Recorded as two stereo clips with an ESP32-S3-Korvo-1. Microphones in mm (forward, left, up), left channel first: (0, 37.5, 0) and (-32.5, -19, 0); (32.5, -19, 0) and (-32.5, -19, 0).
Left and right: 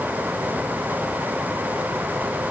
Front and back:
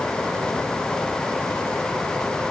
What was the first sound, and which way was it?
Only background noise.